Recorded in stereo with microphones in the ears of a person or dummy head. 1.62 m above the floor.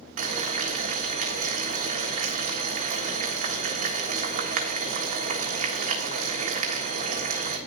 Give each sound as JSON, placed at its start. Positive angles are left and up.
{"t": 0.2, "sound": "boiling", "side_deg": -40, "distance_m": 1.5}